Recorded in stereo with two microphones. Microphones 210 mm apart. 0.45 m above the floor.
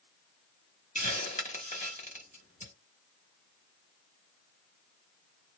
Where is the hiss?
35° left (ahead or behind), 1.2 m.